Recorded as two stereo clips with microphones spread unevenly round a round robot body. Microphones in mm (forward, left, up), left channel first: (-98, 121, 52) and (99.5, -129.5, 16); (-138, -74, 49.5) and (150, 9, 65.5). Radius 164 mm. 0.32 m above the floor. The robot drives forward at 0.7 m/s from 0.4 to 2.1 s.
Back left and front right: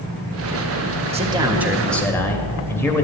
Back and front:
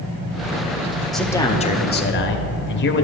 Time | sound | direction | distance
1.1 | a man speaking | 80° right | 1.0 m